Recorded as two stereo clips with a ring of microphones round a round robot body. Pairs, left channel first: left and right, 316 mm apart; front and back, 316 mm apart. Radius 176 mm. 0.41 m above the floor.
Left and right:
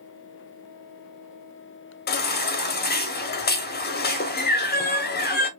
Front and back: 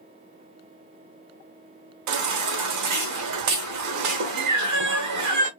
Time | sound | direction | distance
2.1 | a baby crying | 150° left | 0.9 m